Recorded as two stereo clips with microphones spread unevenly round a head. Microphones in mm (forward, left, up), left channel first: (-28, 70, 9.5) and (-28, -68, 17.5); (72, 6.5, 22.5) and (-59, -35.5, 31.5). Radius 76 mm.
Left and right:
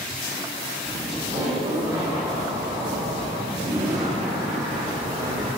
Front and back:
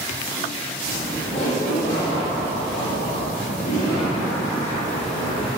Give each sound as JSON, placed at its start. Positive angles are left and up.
{"t": 0.8, "sound": "laughter", "azimuth_deg": -25, "distance_m": 3.0}